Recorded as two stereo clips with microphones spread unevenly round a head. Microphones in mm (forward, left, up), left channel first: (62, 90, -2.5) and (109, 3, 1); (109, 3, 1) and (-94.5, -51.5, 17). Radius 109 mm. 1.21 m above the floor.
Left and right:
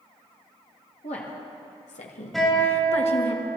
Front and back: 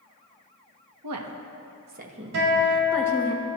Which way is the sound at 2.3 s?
150° right.